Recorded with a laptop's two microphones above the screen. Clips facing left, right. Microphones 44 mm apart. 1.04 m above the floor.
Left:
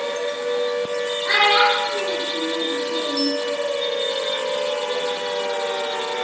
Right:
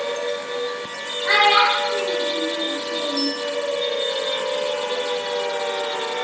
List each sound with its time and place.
1.2 s a child speaking: 25° right (ahead or behind), 2 m; by 3.3 s 35° left (ahead or behind), 2.0 m